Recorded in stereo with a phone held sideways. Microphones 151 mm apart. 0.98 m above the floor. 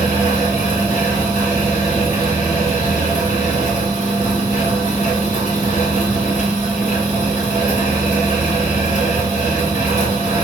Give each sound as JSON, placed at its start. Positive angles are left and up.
{"t": 0.0, "sound": "a fan", "side_deg": 55, "distance_m": 1.6}